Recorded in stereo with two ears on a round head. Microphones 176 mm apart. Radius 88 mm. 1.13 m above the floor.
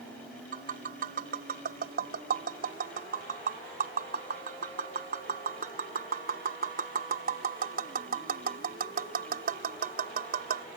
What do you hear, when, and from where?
0.5 s tapping: 50° right (ahead or behind)